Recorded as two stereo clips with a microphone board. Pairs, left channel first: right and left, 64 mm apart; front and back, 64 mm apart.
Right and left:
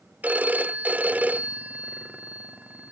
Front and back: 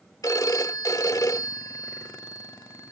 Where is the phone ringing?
25° left.